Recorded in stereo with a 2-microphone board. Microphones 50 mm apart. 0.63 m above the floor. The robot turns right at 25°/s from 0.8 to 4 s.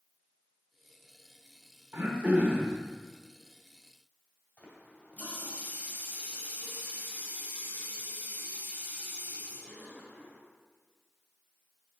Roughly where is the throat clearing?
Right.